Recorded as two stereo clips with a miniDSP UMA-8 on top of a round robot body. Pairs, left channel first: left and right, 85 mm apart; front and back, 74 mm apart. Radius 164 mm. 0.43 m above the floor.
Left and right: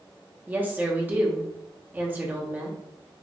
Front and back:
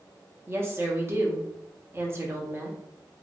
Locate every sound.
0.5 s a woman speaking: 145° right, 1.1 m